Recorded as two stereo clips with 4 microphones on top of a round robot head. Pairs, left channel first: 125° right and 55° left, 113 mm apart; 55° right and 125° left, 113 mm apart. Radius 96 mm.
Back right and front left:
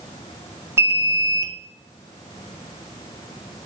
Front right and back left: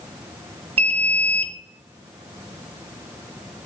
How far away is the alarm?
About 2 m.